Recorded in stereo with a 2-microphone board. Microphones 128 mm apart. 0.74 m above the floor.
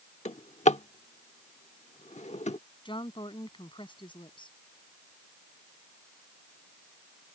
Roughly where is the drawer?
Left.